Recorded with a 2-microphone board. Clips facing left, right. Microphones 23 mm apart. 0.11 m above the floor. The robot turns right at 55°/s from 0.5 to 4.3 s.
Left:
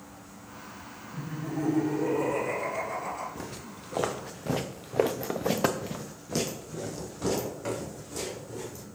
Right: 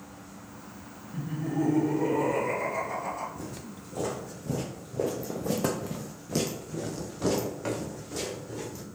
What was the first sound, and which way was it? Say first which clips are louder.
Laughter: right 4 dB; 105° right.